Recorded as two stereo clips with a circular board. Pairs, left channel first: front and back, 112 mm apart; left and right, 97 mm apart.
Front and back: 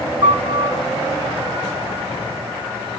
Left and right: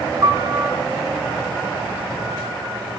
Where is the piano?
140° right, 6.5 m.